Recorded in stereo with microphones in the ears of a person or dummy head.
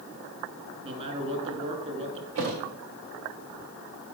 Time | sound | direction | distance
0.8 | a man speaking | 35° right (ahead or behind) | 2.5 m
2.4 | a thud | 60° right (ahead or behind) | 1.6 m